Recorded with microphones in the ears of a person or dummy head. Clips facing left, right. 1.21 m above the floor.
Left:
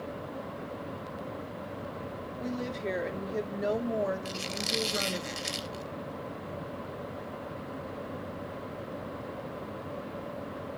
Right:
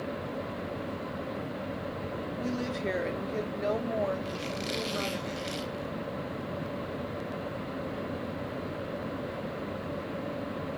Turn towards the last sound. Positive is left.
turn(degrees=55)  # may be behind; listen again after turning